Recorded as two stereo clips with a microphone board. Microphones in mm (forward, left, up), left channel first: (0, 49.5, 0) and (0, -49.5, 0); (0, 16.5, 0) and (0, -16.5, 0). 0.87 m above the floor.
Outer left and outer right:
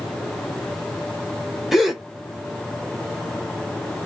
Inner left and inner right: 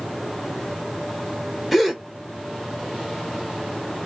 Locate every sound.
1.7 s a gasp: centre (ahead or behind), 1.0 m